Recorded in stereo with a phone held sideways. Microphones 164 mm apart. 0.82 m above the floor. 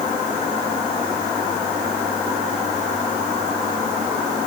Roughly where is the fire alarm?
No fire alarm in this recording.